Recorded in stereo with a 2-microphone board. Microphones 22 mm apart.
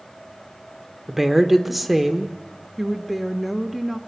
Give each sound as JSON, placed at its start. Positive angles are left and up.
{"t": 1.1, "sound": "a woman speaking", "side_deg": -5, "distance_m": 1.3}
{"t": 2.8, "sound": "a woman speaking", "side_deg": 5, "distance_m": 1.1}